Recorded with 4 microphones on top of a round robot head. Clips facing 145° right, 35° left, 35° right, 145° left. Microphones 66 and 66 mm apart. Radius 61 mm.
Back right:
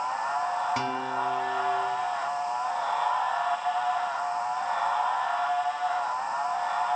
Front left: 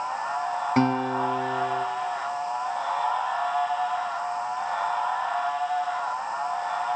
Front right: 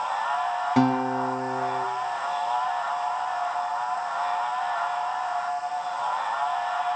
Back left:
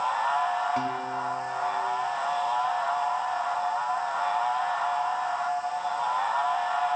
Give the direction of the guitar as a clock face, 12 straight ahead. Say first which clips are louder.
Front left 6 dB, front right 7 dB; 1 o'clock.